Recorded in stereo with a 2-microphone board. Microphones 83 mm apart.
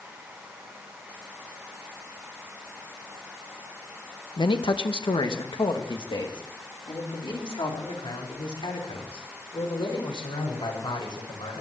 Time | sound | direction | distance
4.4 | a man speaking | 75° left (ahead or behind) | 1.2 m